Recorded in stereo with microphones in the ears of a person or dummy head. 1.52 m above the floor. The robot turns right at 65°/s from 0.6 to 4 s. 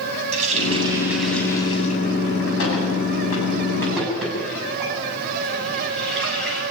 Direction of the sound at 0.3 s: 40° right (ahead or behind).